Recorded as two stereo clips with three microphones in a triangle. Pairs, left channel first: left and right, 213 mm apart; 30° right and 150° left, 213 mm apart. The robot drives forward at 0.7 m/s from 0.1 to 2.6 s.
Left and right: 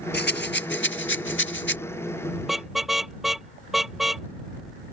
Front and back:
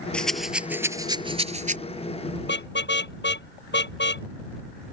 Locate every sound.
0.1 s a rattle: 55° left; by 1.8 s 105° left
2.4 s a car horn: straight ahead